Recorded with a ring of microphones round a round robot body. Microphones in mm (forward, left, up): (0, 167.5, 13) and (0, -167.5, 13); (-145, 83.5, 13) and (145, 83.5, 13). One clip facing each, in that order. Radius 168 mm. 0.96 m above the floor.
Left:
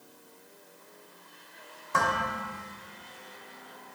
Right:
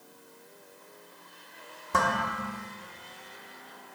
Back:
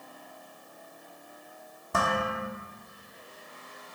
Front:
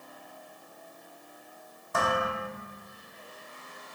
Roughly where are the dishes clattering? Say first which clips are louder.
Right 1 dB, even; behind right.